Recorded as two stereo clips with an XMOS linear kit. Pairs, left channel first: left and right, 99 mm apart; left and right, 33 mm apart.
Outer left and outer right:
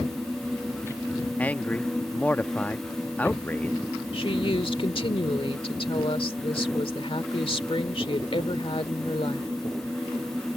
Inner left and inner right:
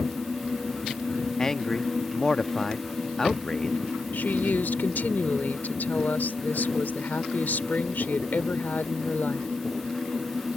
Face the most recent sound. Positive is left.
turn(degrees=70)  # may be behind; listen again after turning